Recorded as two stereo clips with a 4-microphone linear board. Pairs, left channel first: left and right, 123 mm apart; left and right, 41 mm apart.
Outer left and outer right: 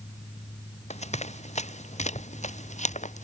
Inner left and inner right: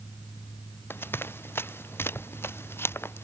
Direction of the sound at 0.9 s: 65° left (ahead or behind).